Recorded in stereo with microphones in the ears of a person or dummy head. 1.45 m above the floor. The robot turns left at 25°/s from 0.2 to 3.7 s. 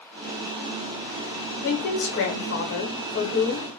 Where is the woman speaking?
115° left, 0.7 m; by 3.7 s 60° left, 0.7 m.